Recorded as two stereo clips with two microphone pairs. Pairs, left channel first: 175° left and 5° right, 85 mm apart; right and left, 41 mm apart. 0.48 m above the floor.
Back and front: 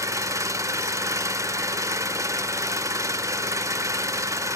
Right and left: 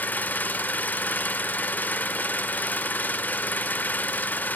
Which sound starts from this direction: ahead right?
An engine running, at 0.0 s.